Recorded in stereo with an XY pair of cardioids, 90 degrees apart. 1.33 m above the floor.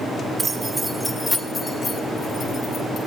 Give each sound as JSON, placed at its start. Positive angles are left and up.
{"t": 0.4, "sound": "keys jangling", "azimuth_deg": -45, "distance_m": 1.2}